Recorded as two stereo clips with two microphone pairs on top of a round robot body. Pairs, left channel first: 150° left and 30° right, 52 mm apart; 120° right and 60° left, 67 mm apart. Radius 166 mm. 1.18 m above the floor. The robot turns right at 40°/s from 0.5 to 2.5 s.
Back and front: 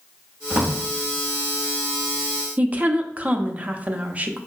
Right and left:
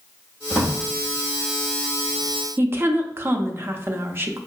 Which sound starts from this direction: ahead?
A woman speaking, at 2.6 s.